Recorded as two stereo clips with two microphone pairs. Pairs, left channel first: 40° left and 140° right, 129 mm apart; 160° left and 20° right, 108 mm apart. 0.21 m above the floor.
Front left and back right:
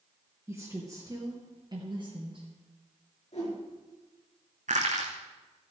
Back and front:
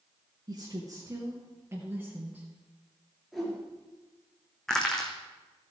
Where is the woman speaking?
65° right, 2.5 m; by 2.5 s 105° right, 3 m.